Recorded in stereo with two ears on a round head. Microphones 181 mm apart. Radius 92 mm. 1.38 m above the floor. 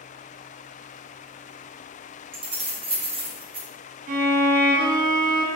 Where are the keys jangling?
30° right (ahead or behind), 0.7 m.